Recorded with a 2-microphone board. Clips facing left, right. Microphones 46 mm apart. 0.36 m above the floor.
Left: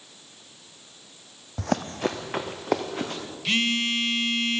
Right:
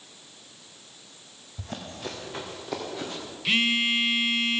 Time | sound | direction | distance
1.6 | running footsteps | 70° left (ahead or behind) | 0.8 m
3.5 | a phone buzzing | 10° right (ahead or behind) | 0.6 m